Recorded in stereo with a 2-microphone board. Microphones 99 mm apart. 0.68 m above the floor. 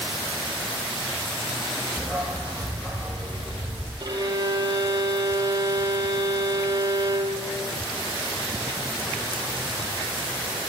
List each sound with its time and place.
2.0 s a dog barking: centre (ahead or behind), 5.5 m; by 3.9 s 5° right (ahead or behind), 7.5 m
4.0 s a violin: 45° right (ahead or behind), 5 m